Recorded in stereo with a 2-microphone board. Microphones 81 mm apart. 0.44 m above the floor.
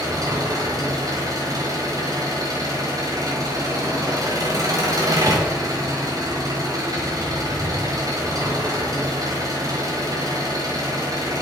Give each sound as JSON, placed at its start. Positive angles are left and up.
{"t": 0.0, "sound": "an engine running", "side_deg": -50, "distance_m": 1.6}
{"t": 5.3, "sound": "tapping", "side_deg": -20, "distance_m": 1.3}